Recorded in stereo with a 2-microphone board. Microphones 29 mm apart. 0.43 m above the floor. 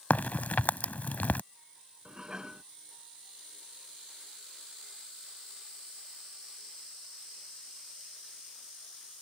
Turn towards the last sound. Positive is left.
turn(degrees=-25)  # may be behind; listen again after turning